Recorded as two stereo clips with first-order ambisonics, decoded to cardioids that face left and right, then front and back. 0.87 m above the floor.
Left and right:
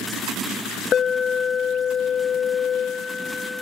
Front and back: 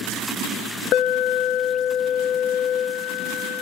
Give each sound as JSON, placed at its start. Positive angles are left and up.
{"t": 0.9, "sound": "an alarm", "azimuth_deg": 30, "distance_m": 0.9}